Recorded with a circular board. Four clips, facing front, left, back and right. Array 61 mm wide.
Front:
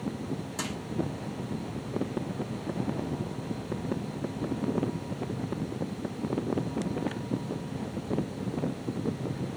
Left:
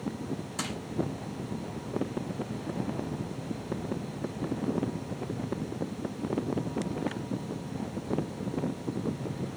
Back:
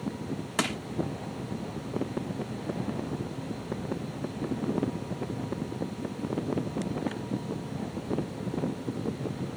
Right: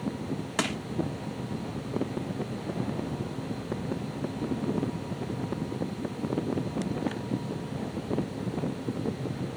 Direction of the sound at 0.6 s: 135° right.